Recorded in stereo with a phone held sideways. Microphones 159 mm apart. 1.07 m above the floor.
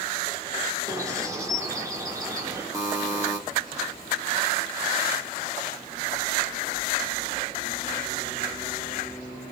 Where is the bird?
20° right (ahead or behind), 1.0 m.